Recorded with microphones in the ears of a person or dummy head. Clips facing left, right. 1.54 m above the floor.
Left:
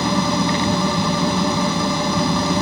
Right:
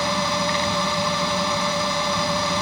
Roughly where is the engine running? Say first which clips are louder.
Left 5 dB; left.